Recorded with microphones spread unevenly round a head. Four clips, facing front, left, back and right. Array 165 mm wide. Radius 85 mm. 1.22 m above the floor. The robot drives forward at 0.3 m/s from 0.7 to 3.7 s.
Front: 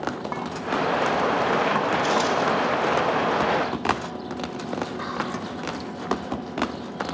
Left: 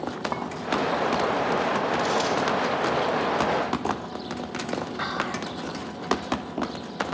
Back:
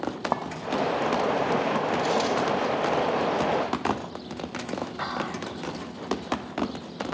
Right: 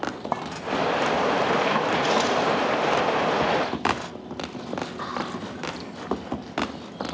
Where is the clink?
155° right, 1.0 m.